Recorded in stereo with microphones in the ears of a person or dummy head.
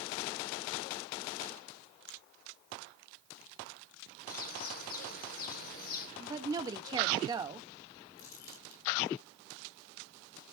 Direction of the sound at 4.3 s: 40° left (ahead or behind).